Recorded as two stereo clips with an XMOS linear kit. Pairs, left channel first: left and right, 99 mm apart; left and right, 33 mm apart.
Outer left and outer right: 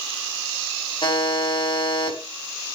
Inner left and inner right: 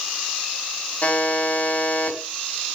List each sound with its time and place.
1.0 s a buzzer: 55° left (ahead or behind), 4.5 m